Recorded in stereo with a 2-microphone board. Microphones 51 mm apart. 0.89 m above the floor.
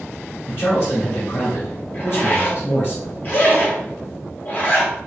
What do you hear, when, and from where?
0.5 s a man speaking: 45° left (ahead or behind), 1.2 m
1.9 s a zipper: 35° left (ahead or behind), 0.8 m